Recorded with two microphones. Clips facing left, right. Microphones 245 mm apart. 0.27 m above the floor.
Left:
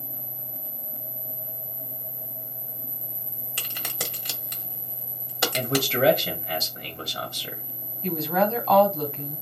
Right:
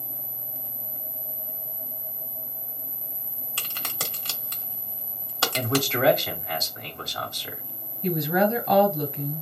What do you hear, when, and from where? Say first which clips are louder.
3.6 s a crack: left 2 dB; 15° left (ahead or behind), 1.3 m
5.5 s a man speaking: even; 35° left (ahead or behind), 1.7 m
8.0 s a woman speaking: right 2 dB; 15° right (ahead or behind), 1.7 m